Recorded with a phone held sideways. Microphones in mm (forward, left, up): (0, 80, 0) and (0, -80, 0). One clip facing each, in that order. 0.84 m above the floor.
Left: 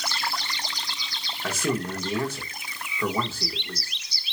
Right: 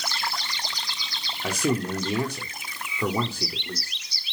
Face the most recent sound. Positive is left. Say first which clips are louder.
# right 2 dB
turn(degrees=-15)  # may be behind; listen again after turning